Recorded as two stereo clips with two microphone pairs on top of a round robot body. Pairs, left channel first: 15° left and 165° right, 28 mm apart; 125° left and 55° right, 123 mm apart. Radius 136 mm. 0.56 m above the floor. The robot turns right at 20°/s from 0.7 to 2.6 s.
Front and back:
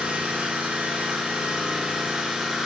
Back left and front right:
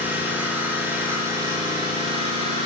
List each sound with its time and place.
0.0 s an engine running: 130° right, 4 m; by 2.7 s 90° right, 4 m